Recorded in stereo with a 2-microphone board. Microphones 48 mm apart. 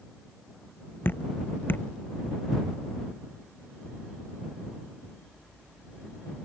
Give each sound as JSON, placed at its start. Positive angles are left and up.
{"t": 1.1, "sound": "dripping", "side_deg": 45}